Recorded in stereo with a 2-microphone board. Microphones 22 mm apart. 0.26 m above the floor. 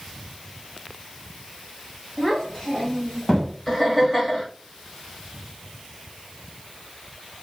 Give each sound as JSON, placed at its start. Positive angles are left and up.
{"t": 2.2, "sound": "a child speaking", "side_deg": 30, "distance_m": 1.5}
{"t": 3.7, "sound": "laughter", "side_deg": 0, "distance_m": 1.1}